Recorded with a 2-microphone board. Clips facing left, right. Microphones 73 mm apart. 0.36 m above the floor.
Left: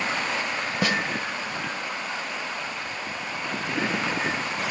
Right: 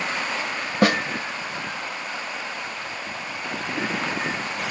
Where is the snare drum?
55° right (ahead or behind), 0.8 m.